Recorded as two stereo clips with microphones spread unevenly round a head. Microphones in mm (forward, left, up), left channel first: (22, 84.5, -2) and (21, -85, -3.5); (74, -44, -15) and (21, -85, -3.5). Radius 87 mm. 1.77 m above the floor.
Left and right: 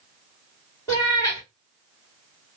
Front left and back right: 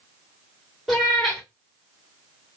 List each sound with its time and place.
0.9 s a cat meowing: 150° left, 1.5 m